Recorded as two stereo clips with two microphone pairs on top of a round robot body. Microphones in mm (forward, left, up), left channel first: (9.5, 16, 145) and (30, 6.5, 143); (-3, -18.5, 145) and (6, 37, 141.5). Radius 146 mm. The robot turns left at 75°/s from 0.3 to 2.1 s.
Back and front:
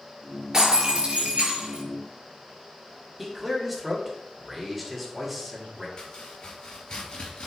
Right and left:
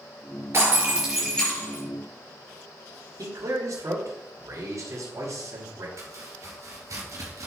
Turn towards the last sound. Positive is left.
turn(degrees=110)